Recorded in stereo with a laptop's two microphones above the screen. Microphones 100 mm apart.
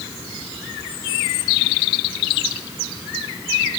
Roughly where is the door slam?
I don't hear a door slam.